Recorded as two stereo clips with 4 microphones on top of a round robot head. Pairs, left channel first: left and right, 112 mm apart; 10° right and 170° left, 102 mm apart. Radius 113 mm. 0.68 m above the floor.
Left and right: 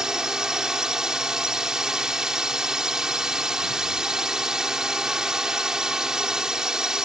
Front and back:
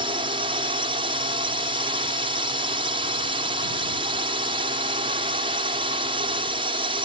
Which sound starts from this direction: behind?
A drone, at 0.0 s.